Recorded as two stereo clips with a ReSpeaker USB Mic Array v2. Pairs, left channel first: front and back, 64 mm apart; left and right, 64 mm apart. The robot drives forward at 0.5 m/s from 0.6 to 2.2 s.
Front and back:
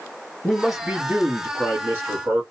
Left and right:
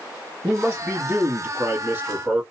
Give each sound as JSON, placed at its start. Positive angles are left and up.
{"t": 0.4, "sound": "a man speaking", "azimuth_deg": -95, "distance_m": 1.4}